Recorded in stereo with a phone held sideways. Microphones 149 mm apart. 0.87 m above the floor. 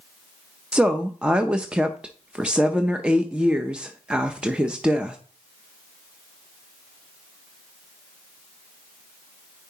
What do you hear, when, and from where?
0.7 s a woman speaking: 5° right (ahead or behind), 0.5 m